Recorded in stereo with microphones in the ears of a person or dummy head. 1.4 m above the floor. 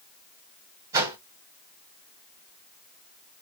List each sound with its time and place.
0.9 s a whoosh: 20° right (ahead or behind), 1.1 m